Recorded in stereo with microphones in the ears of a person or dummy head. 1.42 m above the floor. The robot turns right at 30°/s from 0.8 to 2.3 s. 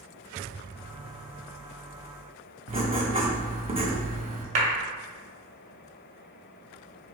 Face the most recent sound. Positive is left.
turn(degrees=-45)  # may be behind; listen again after turning